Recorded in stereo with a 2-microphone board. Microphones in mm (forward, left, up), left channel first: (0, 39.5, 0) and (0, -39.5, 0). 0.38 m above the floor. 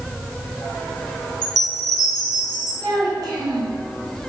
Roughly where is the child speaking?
Right.